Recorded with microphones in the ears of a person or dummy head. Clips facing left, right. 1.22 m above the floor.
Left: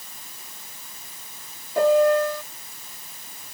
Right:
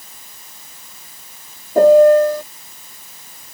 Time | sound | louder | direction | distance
1.8 | a piano | right 9 dB | 40° right (ahead or behind) | ?